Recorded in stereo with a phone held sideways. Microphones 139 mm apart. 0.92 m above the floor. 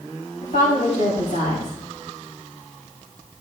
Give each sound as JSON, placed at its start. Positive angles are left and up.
{"t": 0.4, "sound": "a woman speaking", "side_deg": 65, "distance_m": 6.5}